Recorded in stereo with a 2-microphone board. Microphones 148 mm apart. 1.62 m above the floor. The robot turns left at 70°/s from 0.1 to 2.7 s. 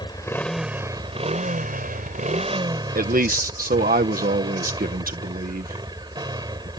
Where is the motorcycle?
30° left; by 6.8 s 150° right.